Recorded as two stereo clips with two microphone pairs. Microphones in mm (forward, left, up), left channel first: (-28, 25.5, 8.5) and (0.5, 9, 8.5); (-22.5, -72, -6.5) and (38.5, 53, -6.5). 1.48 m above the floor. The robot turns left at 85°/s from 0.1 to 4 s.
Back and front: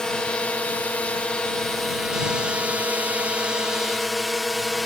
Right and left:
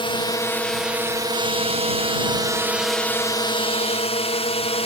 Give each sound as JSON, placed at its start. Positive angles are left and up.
{"t": 0.0, "sound": "a drone", "azimuth_deg": -150}